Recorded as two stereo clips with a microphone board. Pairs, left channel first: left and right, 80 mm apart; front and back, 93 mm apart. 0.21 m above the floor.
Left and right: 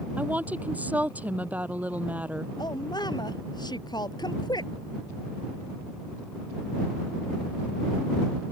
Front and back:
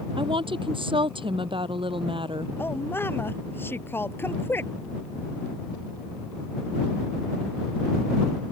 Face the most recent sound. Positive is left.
turn(degrees=65)